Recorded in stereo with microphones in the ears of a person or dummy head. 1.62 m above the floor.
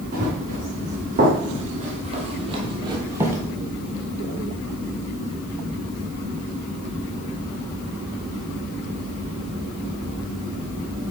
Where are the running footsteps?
45° right (ahead or behind), 3.5 m; by 3.4 s 10° right (ahead or behind), 1.6 m.